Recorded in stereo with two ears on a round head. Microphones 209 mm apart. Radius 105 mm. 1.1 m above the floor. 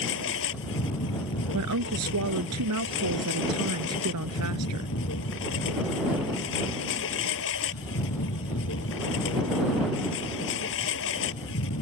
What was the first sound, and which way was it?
A lawn mower, 55° left (ahead or behind).